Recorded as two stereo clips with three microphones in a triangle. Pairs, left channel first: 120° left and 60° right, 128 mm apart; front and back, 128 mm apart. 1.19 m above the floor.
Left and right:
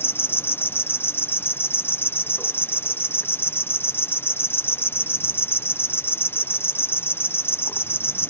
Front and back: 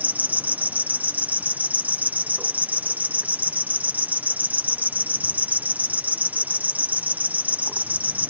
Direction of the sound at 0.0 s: 135° left.